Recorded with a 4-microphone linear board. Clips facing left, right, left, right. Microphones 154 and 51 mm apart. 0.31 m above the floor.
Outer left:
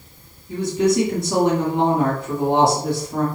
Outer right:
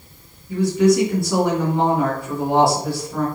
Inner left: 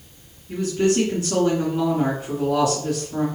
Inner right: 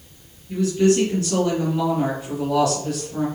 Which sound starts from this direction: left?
A woman speaking, at 0.5 s.